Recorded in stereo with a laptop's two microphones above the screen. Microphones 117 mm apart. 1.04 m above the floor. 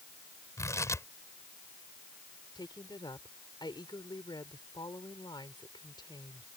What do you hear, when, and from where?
0.6 s tearing paper: 25° left (ahead or behind)
2.5 s a woman speaking: 40° left (ahead or behind)